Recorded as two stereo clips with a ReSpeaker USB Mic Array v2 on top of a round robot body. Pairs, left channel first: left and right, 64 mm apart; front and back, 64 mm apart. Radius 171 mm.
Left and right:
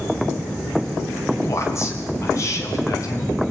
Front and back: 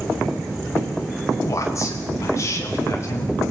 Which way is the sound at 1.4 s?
45° left.